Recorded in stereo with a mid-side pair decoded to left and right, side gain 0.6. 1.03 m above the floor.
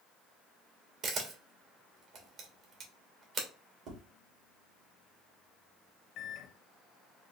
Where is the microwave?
60° left, 0.7 m.